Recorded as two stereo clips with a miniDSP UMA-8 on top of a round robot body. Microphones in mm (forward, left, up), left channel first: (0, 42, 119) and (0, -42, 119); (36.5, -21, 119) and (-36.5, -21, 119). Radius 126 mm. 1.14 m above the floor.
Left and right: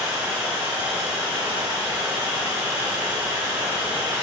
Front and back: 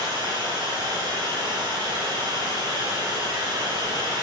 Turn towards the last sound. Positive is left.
turn(degrees=-165)